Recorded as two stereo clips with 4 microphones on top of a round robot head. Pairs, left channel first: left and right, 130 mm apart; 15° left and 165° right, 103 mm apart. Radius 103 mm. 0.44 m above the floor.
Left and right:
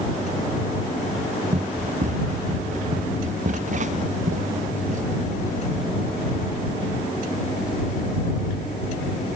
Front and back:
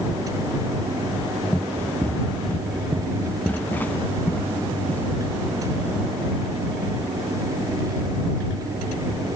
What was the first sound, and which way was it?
Running footsteps, 65° right.